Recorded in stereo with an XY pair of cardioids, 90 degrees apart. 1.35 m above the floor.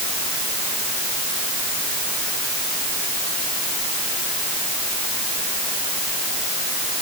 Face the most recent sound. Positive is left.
No sound to turn to.